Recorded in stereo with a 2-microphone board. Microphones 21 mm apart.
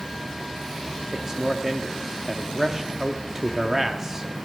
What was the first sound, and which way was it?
A man speaking, 30° right (ahead or behind).